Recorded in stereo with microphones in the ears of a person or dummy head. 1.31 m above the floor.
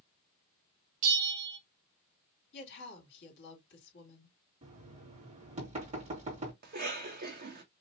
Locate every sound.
1.0 s a bell: 40° right (ahead or behind), 1.5 m
2.5 s a woman speaking: 65° left (ahead or behind), 2.5 m
4.6 s knocking: 35° right (ahead or behind), 2 m
6.6 s a cough: 50° right (ahead or behind), 1.5 m